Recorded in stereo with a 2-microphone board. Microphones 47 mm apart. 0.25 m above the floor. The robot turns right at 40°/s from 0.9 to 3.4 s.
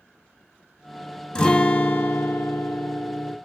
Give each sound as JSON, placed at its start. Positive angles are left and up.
{"t": 1.4, "sound": "a guitar", "azimuth_deg": 15, "distance_m": 0.5}